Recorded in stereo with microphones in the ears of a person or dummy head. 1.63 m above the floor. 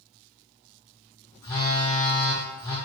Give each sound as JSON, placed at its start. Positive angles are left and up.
{"t": 1.4, "sound": "a phone buzzing", "side_deg": 20, "distance_m": 0.6}